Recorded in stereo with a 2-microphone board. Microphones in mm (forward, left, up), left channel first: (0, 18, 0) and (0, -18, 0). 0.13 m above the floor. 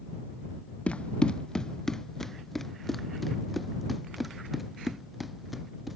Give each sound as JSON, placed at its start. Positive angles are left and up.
{"t": 0.9, "sound": "running footsteps", "side_deg": 35}